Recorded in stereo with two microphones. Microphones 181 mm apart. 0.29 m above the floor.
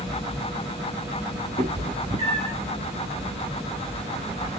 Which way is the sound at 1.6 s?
35° right (ahead or behind).